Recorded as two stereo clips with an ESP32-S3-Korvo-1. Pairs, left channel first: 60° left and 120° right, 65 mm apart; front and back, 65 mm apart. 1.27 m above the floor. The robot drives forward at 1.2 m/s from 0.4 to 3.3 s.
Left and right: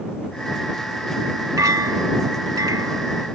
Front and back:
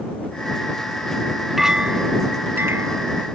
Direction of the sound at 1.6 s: 95° right.